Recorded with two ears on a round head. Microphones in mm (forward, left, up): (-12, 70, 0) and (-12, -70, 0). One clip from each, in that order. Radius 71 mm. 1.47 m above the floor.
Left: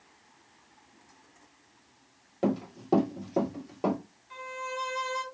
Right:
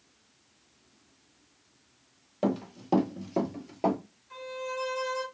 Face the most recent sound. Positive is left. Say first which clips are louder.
# even
turn(degrees=15)  # may be behind; listen again after turning